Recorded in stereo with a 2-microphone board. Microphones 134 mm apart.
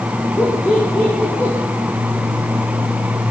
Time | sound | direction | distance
0.4 | laughter | 15° left (ahead or behind) | 4.5 m